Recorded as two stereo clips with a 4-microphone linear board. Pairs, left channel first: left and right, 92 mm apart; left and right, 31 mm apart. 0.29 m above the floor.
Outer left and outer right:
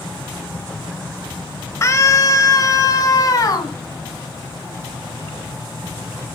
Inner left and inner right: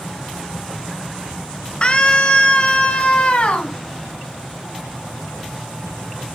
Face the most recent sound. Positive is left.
turn(degrees=40)  # may be behind; listen again after turning